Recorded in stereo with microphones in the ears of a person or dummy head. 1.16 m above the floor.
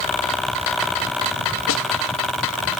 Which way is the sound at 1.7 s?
70° left (ahead or behind).